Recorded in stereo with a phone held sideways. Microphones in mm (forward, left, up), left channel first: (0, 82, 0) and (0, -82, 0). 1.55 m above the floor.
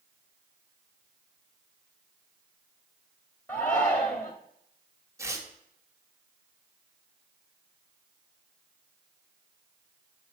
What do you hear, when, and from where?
3.5 s a shout: 20° left (ahead or behind), 0.6 m
5.2 s tearing paper: 20° right (ahead or behind), 1.0 m